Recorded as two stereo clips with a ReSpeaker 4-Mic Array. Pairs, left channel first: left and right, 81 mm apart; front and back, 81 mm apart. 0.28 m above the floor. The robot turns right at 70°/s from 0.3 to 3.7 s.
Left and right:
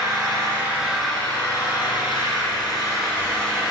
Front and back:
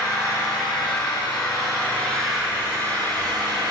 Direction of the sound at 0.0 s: 45° right.